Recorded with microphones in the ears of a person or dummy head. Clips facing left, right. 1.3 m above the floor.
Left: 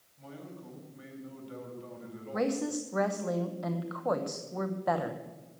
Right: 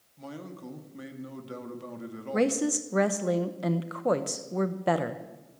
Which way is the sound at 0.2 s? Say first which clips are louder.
Right 5 dB; 65° right (ahead or behind).